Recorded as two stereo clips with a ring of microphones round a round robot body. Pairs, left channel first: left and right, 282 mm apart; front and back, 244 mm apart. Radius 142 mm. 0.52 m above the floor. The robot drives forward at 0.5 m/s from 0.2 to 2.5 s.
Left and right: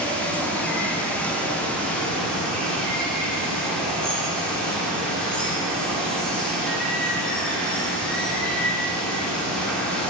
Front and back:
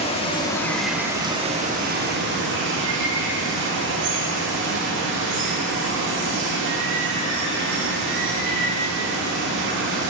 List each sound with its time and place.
0.0 s running water: 10° left, 0.8 m; by 10.1 s 175° left, 1.1 m